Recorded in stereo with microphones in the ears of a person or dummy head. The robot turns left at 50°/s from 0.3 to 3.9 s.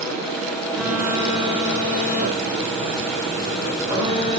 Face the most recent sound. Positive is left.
turn(degrees=-150)